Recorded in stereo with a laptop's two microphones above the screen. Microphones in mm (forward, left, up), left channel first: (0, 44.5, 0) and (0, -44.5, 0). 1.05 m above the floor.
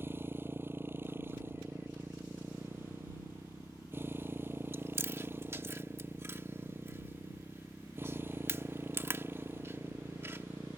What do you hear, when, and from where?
0.0 s a motorcycle: 25° right (ahead or behind)
4.7 s chewing: 30° right (ahead or behind)